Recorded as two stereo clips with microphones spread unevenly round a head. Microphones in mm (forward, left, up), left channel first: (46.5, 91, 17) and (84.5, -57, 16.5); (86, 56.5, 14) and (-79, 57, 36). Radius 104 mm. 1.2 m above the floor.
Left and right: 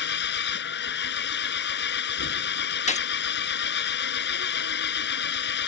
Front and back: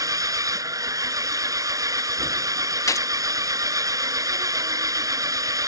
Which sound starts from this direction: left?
An engine running, at 0.0 s.